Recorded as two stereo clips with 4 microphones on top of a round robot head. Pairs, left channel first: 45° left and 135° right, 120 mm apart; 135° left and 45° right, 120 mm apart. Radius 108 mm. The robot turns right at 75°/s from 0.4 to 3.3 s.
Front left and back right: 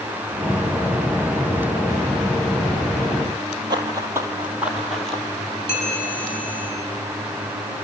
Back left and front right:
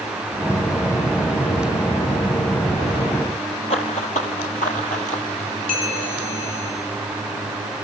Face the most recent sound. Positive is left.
turn(degrees=115)